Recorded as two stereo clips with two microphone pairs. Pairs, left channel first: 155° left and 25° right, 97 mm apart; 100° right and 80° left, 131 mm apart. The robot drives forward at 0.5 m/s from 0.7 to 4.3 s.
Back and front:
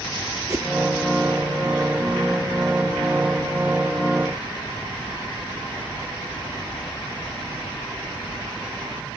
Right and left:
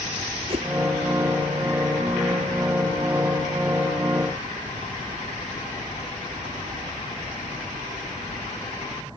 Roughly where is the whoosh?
Ahead left.